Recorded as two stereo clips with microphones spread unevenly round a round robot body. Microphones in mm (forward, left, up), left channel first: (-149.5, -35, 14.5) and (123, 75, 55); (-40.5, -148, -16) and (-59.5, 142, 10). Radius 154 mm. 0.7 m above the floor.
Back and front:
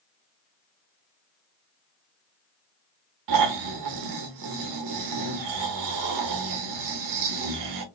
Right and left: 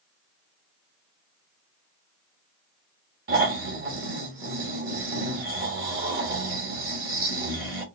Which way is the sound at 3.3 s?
35° left.